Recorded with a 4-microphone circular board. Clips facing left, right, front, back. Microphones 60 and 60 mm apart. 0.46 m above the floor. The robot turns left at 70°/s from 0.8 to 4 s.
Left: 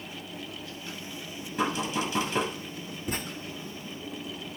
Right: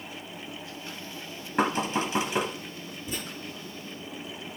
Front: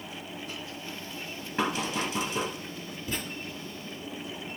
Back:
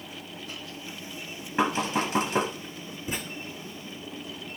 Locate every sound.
1.6 s knocking: 115° right, 1.9 m; by 2.5 s straight behind, 1.9 m
3.1 s writing: 115° left, 3.5 m; by 3.2 s 105° left, 3.5 m